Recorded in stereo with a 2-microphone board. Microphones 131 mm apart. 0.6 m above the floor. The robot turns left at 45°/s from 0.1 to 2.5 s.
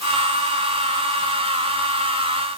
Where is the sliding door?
I don't hear a sliding door.